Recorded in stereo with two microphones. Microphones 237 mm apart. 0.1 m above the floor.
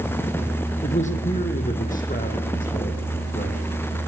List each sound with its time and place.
0.8 s a man speaking: 30° left (ahead or behind), 4 m; by 3.6 s 35° left (ahead or behind), 7 m